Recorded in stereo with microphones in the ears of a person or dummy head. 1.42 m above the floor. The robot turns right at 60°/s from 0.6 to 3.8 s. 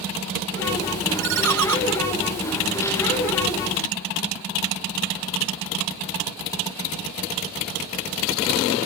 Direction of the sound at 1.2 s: 115° right.